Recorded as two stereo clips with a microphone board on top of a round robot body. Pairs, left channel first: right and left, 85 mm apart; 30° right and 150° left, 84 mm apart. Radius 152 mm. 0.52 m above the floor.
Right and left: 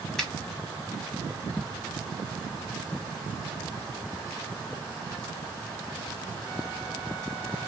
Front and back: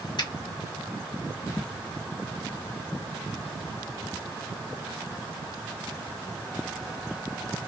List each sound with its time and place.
0.2 s a finger snap: 5° right, 2 m